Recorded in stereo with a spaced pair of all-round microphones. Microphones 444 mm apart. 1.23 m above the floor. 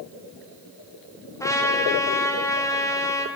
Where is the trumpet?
5° left (ahead or behind), 1.2 m.